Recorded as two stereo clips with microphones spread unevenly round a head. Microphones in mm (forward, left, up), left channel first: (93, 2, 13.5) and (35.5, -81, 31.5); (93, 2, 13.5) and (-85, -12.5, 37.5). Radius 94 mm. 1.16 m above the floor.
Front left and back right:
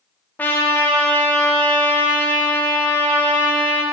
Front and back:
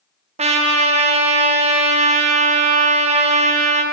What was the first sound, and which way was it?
A trumpet, 130° left.